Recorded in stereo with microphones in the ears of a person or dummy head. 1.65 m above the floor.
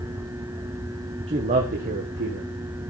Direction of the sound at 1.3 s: 20° right (ahead or behind).